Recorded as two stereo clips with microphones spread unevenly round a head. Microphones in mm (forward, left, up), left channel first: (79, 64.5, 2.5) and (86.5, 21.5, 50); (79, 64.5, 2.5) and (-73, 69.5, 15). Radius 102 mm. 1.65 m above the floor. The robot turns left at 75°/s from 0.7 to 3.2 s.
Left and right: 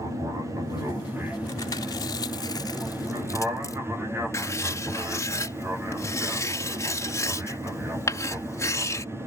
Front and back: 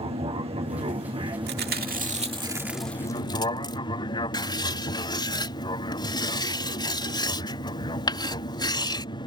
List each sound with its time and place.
0.0 s an aircraft: 165° right; by 9.3 s 10° left
1.5 s chewing: 170° right; by 3.8 s 60° left
4.3 s writing: 60° left